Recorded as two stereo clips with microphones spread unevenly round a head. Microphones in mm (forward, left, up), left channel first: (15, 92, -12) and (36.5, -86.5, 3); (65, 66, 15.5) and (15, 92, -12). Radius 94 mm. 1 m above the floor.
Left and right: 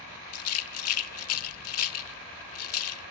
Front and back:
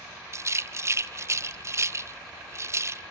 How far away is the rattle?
About 1.5 m.